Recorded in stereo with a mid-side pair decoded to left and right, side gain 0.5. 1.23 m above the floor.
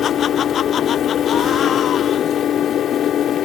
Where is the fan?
60° left.